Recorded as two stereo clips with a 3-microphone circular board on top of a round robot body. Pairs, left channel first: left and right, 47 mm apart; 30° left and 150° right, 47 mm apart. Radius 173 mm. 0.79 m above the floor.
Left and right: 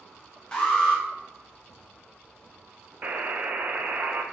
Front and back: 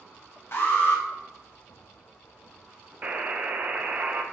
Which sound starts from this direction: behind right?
A buzzer, at 3.0 s.